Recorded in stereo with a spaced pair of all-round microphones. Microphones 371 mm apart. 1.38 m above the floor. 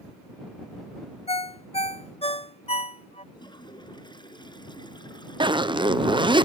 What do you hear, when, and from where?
1.3 s a ringtone: 15° left (ahead or behind)
3.4 s a toilet flushing: 10° left (ahead or behind)
5.4 s a zipper: 15° right (ahead or behind)